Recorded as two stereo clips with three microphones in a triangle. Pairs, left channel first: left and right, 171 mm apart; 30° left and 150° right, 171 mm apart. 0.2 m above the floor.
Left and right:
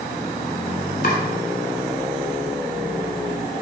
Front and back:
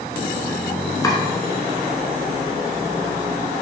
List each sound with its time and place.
1.0 s chopping: 95° left, 1.1 m